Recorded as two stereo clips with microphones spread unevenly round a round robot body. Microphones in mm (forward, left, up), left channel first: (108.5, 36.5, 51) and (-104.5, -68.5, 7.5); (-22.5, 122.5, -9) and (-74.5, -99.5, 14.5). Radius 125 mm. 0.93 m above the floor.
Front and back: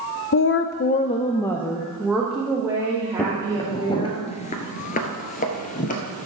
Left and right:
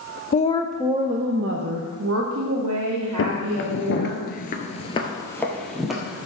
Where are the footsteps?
100° left, 1.4 m; by 6.3 s 25° right, 1.8 m.